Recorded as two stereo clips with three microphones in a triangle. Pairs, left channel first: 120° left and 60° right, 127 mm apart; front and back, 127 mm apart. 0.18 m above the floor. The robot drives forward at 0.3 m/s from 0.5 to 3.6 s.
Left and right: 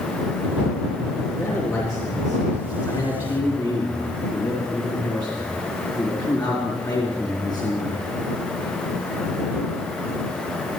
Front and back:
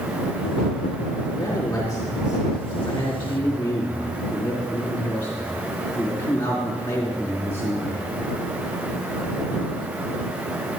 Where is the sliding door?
I don't hear a sliding door.